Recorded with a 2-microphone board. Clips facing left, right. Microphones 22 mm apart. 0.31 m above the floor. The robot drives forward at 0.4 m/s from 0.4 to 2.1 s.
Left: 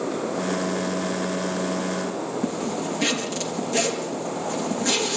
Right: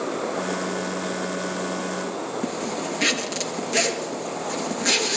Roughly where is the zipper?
Right.